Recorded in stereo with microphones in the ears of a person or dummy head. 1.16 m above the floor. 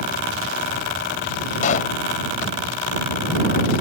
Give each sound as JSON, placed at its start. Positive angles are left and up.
{"t": 1.6, "sound": "a pop", "side_deg": 50}